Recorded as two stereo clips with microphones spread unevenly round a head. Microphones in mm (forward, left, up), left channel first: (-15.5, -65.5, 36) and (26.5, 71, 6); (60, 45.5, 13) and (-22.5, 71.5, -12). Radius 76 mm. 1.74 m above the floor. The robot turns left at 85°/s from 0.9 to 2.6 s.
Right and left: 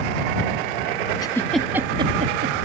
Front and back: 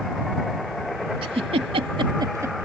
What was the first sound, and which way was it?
A giggle, 155° right.